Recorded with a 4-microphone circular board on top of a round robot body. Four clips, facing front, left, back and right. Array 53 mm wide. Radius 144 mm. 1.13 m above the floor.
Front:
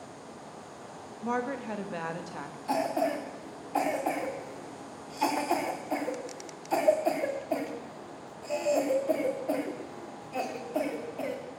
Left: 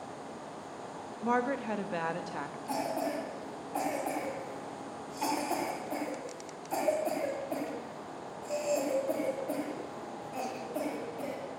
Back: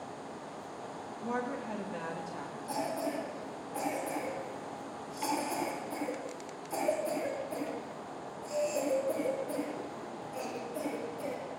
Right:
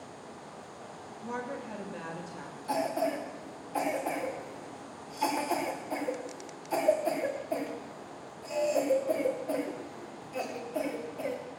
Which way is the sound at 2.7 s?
5° right.